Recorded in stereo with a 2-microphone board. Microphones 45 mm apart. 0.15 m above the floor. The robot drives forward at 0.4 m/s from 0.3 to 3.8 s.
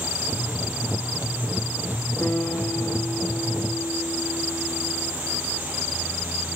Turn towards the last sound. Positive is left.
turn(degrees=75)  # may be behind; listen again after turning